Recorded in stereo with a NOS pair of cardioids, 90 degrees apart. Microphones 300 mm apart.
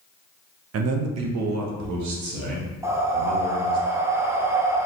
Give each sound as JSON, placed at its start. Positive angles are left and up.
{"t": 0.7, "sound": "a man speaking", "azimuth_deg": -55, "distance_m": 0.7}
{"t": 2.8, "sound": "breathing", "azimuth_deg": -10, "distance_m": 0.7}